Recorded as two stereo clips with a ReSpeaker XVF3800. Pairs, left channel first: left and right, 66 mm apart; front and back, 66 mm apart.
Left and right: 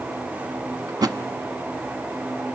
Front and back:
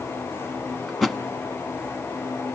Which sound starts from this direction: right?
A thud, at 0.9 s.